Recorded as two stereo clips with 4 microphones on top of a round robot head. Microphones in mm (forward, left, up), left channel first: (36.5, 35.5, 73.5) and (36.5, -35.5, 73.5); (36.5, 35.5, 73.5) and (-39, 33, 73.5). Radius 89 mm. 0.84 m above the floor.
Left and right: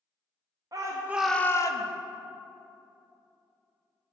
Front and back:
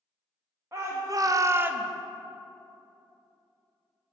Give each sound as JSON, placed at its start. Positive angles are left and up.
{"t": 0.7, "sound": "a shout", "azimuth_deg": -125, "distance_m": 1.1}